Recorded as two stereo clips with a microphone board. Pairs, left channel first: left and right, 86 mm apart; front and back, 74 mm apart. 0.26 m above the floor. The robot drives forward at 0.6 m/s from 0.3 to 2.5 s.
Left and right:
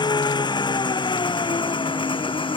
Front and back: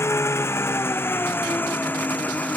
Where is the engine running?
55° left; by 2.6 s 70° left.